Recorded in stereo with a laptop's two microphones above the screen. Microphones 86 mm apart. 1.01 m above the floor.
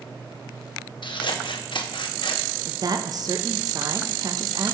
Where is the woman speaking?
45° right (ahead or behind), 0.6 m.